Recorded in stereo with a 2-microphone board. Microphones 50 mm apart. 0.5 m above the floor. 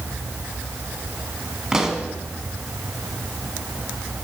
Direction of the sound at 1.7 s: 15° right (ahead or behind).